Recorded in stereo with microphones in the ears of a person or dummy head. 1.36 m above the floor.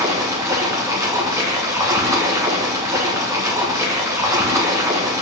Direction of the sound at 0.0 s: 10° right (ahead or behind).